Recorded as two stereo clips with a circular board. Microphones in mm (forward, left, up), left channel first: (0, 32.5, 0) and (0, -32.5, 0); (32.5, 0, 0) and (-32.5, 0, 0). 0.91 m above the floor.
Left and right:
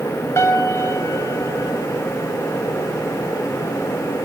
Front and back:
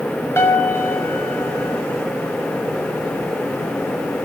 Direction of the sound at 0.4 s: 50° left.